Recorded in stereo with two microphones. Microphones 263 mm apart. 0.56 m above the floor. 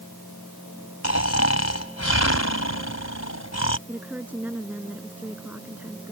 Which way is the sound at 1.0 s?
75° left (ahead or behind).